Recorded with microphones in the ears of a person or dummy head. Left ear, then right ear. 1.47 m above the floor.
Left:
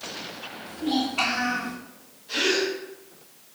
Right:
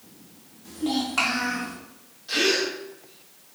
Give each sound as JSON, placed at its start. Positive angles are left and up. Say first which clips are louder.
{"t": 0.7, "sound": "a child speaking", "louder": "even", "side_deg": -65, "distance_m": 1.5}
{"t": 2.3, "sound": "a gasp", "louder": "right 1 dB", "side_deg": -65, "distance_m": 1.2}